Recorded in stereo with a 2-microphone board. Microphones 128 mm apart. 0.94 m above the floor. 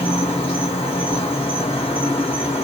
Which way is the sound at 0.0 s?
45° left (ahead or behind).